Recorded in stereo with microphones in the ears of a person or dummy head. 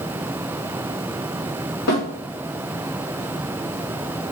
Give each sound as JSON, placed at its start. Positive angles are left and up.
{"t": 1.9, "sound": "a snare drum", "side_deg": 65, "distance_m": 4.0}